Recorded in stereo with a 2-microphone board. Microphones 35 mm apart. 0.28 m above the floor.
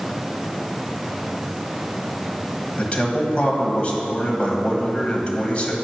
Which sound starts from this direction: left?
A man speaking, at 2.8 s.